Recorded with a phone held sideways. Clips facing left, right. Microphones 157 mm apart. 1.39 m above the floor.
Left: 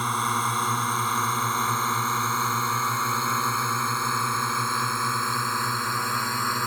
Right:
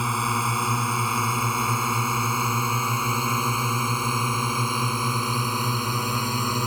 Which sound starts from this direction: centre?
A drone, at 0.0 s.